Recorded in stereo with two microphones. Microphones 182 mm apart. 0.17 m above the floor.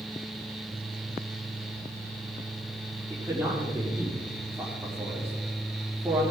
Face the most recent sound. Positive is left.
turn(degrees=-20)  # may be behind; listen again after turning